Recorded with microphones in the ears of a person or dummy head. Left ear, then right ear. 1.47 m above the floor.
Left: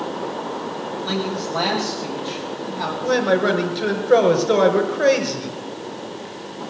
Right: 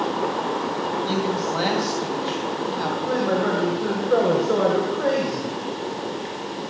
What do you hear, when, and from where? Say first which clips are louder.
1.0 s a man speaking: right 1 dB; centre (ahead or behind), 9 m
3.0 s a man speaking: left 6 dB; 65° left (ahead or behind), 5.5 m